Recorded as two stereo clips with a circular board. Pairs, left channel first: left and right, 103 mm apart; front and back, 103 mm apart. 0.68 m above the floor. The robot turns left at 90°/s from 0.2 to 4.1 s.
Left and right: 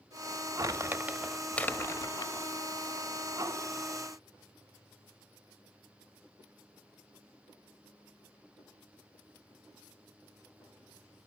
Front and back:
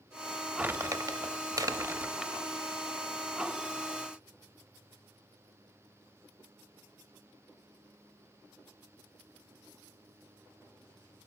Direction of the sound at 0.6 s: 110° right.